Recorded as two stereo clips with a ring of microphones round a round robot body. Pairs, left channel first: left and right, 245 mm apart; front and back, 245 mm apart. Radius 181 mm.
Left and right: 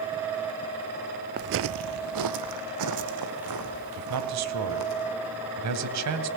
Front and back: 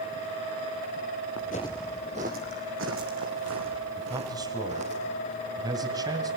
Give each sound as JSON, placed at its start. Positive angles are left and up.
{"t": 1.4, "sound": "footsteps", "azimuth_deg": -45, "distance_m": 0.6}
{"t": 4.0, "sound": "a man speaking", "azimuth_deg": -100, "distance_m": 2.5}